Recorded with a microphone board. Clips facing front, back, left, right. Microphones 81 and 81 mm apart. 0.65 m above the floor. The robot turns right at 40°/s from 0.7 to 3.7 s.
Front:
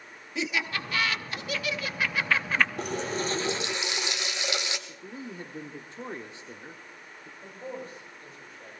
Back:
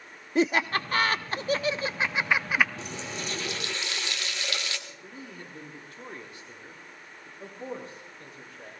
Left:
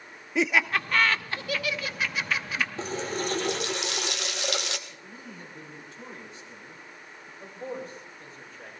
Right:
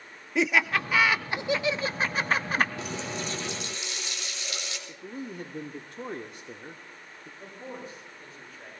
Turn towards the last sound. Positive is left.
turn(degrees=180)